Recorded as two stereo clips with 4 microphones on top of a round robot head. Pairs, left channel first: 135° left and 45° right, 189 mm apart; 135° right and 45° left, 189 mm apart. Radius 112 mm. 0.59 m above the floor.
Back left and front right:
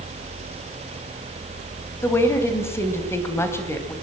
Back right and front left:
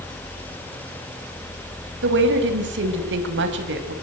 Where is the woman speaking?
60° left, 3.5 m.